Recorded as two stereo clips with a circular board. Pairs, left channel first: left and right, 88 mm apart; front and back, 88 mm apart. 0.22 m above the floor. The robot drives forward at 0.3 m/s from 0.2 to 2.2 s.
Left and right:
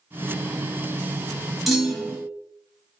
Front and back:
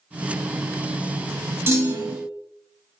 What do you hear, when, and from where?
1.7 s a clunk: 175° right, 0.8 m